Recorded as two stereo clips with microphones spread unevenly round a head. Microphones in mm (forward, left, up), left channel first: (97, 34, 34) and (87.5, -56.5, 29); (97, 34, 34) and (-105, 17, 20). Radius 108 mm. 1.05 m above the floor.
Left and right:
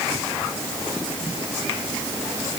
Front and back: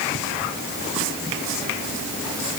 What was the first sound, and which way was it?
Only background noise.